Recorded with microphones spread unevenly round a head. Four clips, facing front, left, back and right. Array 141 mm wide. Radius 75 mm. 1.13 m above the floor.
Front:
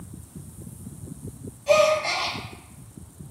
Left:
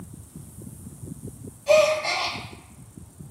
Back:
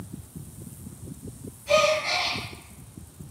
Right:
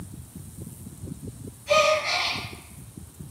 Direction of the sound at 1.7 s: 50° left.